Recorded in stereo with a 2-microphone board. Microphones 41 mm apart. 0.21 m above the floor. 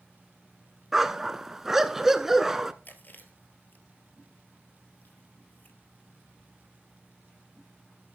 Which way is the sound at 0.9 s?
10° right (ahead or behind).